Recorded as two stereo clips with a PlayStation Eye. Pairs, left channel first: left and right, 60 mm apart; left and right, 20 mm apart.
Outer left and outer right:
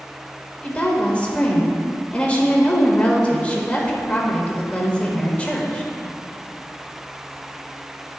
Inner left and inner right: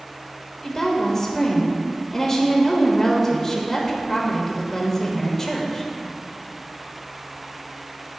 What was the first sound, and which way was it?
A woman speaking, 20° left (ahead or behind).